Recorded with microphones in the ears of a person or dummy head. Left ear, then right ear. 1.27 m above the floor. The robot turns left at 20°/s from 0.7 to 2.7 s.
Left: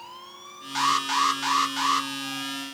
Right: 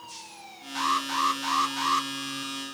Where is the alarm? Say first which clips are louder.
Left 3 dB; 35° left (ahead or behind), 0.9 m; by 2.1 s 10° left (ahead or behind), 0.9 m.